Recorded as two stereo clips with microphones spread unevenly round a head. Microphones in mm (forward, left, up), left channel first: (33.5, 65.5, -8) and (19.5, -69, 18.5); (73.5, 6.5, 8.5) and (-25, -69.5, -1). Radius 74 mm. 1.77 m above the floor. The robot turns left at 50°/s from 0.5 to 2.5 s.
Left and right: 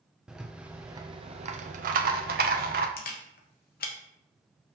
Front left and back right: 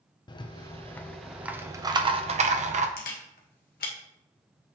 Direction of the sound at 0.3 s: 15° right.